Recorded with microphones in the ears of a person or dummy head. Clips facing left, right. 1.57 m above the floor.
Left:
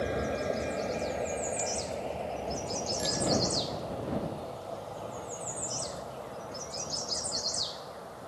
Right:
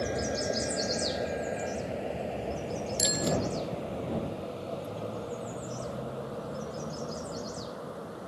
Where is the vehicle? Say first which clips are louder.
Even; centre (ahead or behind); by 8.3 s 45° right (ahead or behind).